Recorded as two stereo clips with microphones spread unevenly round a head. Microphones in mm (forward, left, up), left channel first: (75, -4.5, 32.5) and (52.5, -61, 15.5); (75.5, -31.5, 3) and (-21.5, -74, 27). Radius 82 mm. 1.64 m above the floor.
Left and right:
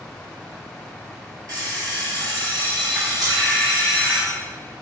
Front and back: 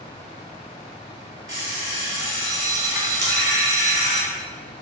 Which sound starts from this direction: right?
An alarm clock, at 1.5 s.